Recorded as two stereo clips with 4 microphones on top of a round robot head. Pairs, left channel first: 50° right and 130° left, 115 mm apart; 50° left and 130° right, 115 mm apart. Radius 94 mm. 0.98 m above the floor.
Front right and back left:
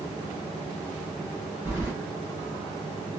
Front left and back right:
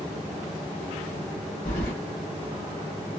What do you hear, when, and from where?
1.6 s keys jangling: 55° left, 1.4 m